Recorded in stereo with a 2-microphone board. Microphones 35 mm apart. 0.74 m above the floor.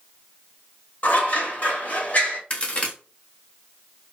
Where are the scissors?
45° left (ahead or behind), 0.9 m.